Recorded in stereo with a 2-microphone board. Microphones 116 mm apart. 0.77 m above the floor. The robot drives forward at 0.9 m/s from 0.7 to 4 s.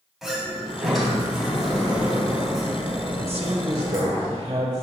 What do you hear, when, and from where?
0.2 s a sliding door: centre (ahead or behind), 2.5 m
3.2 s a man speaking: 50° right (ahead or behind), 1.0 m; by 4.8 s 40° right (ahead or behind), 1.1 m